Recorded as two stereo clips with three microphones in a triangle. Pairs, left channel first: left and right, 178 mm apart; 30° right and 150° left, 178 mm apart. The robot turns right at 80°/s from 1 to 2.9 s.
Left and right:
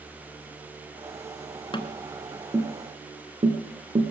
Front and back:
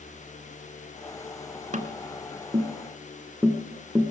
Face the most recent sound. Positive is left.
turn(degrees=-130)